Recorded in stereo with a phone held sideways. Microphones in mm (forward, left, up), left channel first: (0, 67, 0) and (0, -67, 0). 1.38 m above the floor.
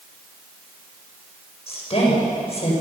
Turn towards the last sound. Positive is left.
turn(degrees=45)  # may be behind; listen again after turning